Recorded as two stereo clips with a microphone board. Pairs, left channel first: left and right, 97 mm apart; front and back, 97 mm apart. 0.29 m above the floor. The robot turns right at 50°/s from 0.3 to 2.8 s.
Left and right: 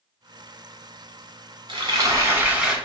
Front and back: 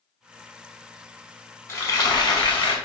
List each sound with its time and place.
1.7 s frying: 60° right, 1.0 m; by 2.8 s 5° right, 1.0 m